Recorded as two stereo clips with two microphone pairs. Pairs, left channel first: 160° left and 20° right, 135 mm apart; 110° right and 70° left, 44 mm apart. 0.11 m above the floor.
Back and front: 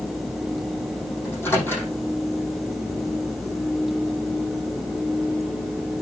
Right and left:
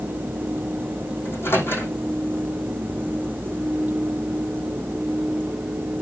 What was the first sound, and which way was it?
A microwave, 130° right.